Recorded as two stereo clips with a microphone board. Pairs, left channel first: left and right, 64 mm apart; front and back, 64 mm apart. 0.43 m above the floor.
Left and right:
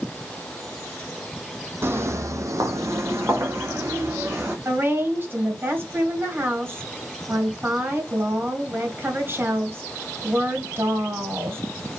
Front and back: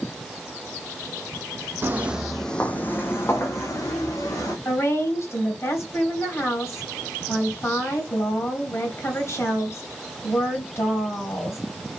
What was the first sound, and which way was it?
Footsteps, 130° right.